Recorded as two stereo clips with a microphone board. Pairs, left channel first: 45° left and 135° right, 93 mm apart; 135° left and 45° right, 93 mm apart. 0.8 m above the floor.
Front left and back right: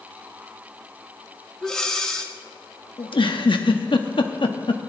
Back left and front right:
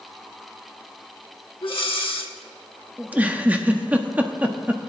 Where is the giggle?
25° left, 0.9 m.